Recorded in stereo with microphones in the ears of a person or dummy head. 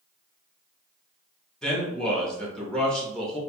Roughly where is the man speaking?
Centre.